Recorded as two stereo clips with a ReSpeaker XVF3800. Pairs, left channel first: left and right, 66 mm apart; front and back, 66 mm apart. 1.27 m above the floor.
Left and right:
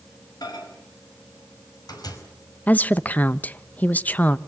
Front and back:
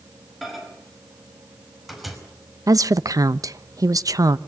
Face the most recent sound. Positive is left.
turn(degrees=155)